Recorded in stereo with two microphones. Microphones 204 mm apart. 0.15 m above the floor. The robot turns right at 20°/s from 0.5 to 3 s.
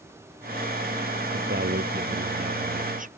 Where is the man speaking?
75° right; by 3.1 s 45° right.